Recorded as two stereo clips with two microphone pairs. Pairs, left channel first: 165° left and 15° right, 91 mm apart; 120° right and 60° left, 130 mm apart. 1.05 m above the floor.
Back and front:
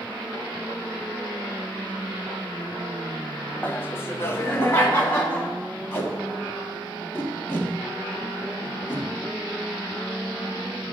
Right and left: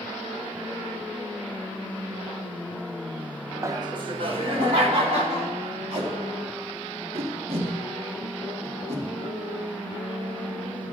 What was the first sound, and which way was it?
Laughter, 105° left.